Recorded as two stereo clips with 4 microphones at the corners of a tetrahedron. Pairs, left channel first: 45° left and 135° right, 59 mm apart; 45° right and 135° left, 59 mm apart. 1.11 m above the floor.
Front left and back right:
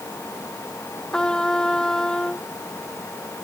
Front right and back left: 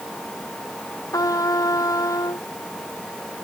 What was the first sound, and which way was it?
A trumpet, 35° right.